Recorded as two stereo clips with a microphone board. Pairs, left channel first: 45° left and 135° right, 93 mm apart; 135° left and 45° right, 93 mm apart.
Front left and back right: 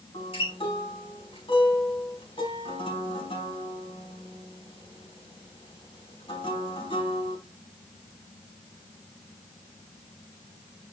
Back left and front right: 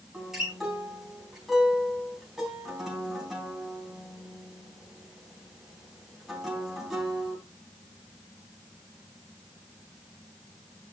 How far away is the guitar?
About 4 m.